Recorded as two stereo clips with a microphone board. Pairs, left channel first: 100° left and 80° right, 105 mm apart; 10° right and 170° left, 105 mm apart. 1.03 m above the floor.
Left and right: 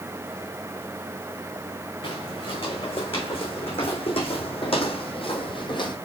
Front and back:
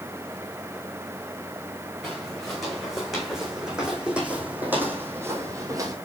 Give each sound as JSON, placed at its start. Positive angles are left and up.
{"t": 2.0, "sound": "footsteps", "azimuth_deg": 75, "distance_m": 3.5}